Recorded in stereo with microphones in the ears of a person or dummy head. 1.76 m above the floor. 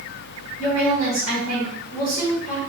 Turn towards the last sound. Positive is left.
turn(degrees=55)  # may be behind; listen again after turning